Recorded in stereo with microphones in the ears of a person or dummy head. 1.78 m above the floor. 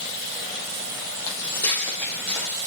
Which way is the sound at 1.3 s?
20° left (ahead or behind).